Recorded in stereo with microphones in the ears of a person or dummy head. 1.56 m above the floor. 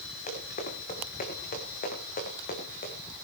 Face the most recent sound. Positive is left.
turn(degrees=40)  # may be behind; listen again after turning